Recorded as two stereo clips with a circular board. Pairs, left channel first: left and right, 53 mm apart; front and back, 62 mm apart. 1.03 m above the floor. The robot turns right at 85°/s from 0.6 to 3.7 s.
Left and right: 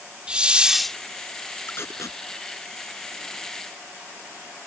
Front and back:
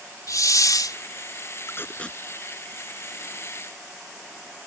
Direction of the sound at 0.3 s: 20° right.